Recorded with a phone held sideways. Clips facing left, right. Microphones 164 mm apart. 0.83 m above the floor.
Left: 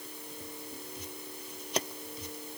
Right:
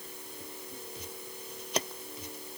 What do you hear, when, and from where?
Only background noise.